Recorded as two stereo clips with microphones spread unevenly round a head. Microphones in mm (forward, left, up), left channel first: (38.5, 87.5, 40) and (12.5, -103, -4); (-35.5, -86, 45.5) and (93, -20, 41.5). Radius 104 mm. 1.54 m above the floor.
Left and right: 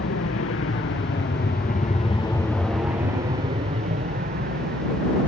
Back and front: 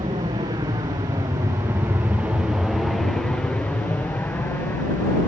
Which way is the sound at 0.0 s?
90° left.